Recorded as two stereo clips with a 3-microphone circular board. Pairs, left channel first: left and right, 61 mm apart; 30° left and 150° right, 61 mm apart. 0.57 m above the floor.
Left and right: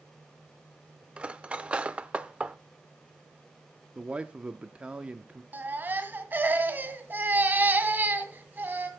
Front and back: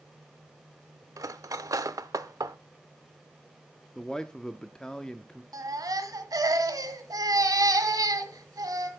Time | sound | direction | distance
1.2 | cutlery clinking | 160° right | 0.7 m
4.0 | a man speaking | 40° right | 0.6 m
5.5 | a baby crying | 150° right | 1.5 m